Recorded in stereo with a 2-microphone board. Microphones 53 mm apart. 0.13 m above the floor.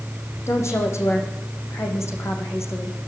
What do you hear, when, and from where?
0.5 s a woman speaking: 60° left (ahead or behind), 6 m